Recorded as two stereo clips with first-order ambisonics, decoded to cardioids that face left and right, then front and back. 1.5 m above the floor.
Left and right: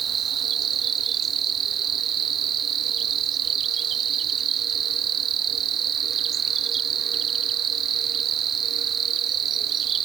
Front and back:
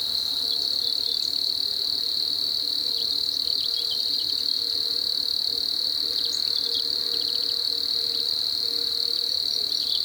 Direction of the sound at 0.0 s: 80° right.